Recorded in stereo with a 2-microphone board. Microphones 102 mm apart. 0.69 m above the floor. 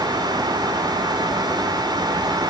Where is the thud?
No thud in this recording.